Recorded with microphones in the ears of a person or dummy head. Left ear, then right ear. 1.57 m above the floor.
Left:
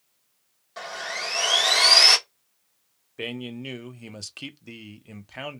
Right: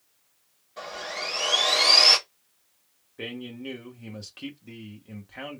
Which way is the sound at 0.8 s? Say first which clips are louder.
Left 2 dB; 60° left (ahead or behind).